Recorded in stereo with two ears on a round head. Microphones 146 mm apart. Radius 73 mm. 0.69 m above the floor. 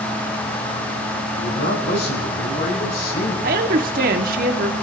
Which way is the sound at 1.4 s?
70° left (ahead or behind).